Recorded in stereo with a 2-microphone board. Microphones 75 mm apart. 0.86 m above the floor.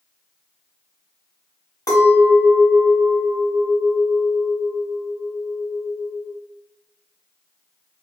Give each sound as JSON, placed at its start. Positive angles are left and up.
{"t": 1.9, "sound": "a clink", "side_deg": 60, "distance_m": 1.5}